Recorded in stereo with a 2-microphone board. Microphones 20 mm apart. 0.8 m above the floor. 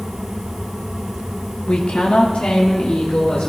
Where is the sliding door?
I don't hear a sliding door.